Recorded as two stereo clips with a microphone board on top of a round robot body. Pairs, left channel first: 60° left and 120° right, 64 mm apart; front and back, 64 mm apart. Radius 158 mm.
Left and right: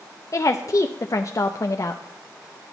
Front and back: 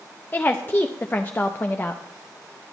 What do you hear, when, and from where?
0.3 s a woman speaking: 55° left, 0.6 m